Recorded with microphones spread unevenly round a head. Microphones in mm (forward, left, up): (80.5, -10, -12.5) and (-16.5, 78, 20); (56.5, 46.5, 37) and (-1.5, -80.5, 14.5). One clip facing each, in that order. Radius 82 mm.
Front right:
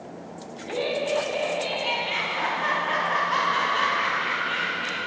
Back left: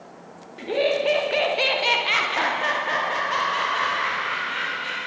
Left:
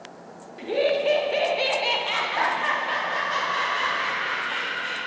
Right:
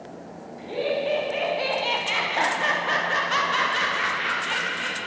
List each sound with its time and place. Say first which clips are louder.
0.6 s laughter: back left 5 dB, left 4 dB; 110° left, 1.5 m; by 5.0 s 125° right, 2.5 m